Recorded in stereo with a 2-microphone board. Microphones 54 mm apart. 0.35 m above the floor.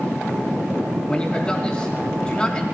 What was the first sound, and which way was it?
A man speaking, 20° left (ahead or behind).